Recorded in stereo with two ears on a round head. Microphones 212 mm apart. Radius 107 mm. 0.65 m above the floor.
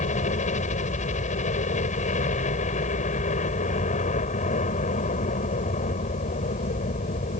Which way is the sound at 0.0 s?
30° left (ahead or behind).